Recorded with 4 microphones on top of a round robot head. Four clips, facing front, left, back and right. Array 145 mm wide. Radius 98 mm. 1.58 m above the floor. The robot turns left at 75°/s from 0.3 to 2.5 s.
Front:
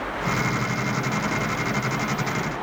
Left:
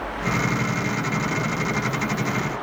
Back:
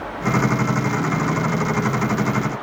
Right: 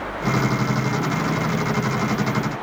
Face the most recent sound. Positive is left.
No sound to turn to.